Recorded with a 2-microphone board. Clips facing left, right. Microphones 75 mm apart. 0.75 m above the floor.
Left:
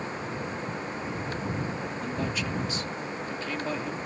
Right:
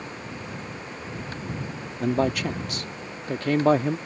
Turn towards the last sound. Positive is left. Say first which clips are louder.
# right 11 dB
turn(degrees=-60)  # may be behind; listen again after turning